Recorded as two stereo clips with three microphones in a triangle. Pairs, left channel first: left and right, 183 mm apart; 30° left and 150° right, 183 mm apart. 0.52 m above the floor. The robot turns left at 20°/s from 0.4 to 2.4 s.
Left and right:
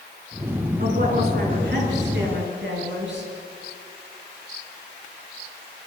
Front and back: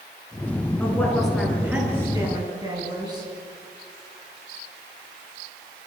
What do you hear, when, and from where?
0.8 s a woman speaking: 50° right, 8.5 m; by 3.3 s 80° right, 8.5 m